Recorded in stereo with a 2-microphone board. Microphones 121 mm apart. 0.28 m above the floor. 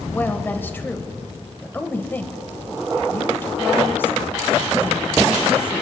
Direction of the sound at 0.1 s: 15° left (ahead or behind).